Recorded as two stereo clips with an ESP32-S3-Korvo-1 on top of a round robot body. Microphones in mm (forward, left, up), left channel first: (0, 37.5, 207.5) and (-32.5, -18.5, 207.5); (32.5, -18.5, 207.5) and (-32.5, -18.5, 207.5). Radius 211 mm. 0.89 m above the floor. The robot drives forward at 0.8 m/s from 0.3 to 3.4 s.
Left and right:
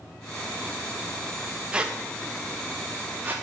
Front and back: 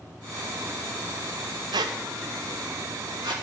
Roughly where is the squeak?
Behind.